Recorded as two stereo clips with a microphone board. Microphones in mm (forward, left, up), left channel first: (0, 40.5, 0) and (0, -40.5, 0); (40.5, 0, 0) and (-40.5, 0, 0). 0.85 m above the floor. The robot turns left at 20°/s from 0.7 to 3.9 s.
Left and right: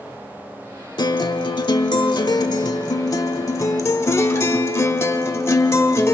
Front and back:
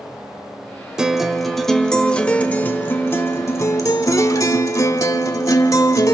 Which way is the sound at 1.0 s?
100° left.